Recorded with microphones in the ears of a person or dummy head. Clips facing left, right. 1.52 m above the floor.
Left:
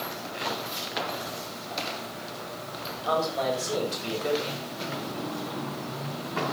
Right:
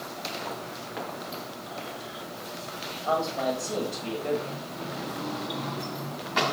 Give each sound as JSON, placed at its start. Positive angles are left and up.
{"t": 3.0, "sound": "a man speaking", "side_deg": 25, "distance_m": 9.5}